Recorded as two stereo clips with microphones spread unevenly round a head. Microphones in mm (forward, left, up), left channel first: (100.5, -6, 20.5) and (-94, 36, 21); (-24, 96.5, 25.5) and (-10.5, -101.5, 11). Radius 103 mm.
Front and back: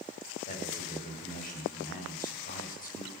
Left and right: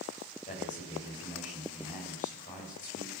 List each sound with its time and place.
0.5 s a man speaking: 35° left, 8.5 m